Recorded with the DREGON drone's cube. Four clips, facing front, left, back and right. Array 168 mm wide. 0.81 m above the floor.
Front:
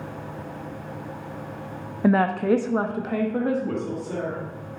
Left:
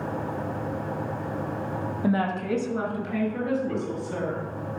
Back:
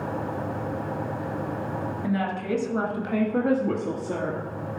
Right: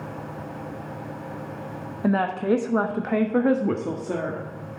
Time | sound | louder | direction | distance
2.0 | a woman speaking | right 4 dB, front 9 dB | 10° right | 1.3 m